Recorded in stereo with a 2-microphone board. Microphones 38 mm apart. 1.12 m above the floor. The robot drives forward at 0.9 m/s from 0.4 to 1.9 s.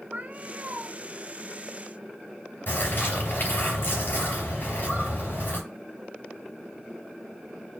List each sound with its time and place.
0.1 s a cat meowing: 40° right (ahead or behind), 0.6 m; by 0.9 s 35° right (ahead or behind), 0.7 m
2.7 s a bird: 55° left (ahead or behind), 3.5 m